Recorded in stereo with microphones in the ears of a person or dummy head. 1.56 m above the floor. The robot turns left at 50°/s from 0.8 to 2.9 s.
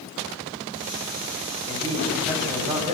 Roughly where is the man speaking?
Ahead left.